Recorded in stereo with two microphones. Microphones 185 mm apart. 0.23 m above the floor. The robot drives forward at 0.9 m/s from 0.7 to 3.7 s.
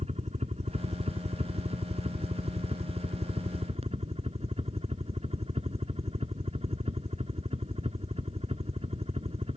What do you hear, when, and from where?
0.0 s a helicopter: 35° right (ahead or behind); by 9.6 s 30° right (ahead or behind)